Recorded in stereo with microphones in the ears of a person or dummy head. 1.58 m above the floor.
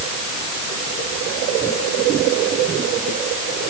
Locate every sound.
Only background noise.